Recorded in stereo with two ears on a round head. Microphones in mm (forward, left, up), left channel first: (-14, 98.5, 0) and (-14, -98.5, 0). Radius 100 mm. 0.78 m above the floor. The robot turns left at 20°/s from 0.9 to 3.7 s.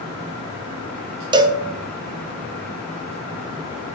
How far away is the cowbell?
About 0.5 m.